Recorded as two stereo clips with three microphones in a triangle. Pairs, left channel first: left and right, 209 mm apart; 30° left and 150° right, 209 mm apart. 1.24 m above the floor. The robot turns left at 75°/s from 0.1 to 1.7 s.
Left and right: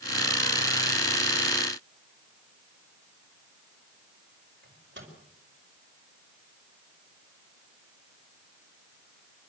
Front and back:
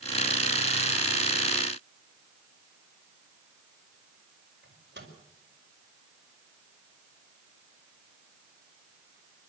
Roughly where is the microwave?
Behind right.